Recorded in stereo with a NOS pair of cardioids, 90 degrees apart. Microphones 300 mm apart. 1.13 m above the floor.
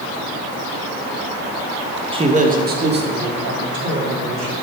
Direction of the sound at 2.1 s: 15° right.